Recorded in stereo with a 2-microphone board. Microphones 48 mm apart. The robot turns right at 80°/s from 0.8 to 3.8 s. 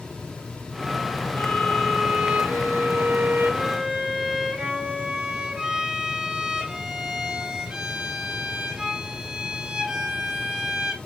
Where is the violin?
145° left, 1.1 m; by 11.0 s 20° right, 1.1 m.